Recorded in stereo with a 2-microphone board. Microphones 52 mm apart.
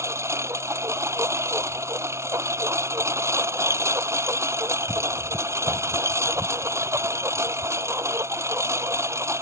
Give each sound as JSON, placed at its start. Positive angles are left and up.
{"t": 0.0, "sound": "a lawn mower", "side_deg": -70}